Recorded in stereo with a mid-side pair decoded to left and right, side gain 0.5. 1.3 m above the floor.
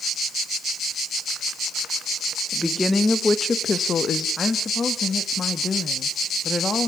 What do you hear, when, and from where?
2.5 s a woman speaking: 5° left, 2 m; by 4.3 s 50° left, 1.4 m
4.4 s a woman speaking: 25° left, 1.7 m